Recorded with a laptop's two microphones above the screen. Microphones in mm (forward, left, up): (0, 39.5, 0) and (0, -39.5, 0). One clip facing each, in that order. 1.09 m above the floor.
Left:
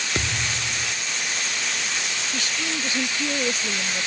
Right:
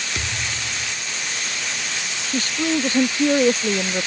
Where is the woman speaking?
40° right (ahead or behind).